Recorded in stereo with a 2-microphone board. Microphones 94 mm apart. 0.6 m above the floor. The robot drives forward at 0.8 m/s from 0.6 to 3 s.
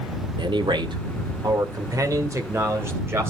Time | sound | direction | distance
0.4 | a man speaking | 55° right (ahead or behind) | 1.4 m